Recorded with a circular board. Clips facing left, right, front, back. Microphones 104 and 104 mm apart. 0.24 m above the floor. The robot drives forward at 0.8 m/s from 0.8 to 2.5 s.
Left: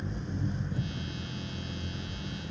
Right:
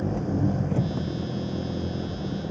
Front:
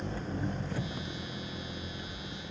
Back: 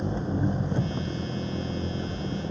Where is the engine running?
115° right; by 2.5 s 125° right.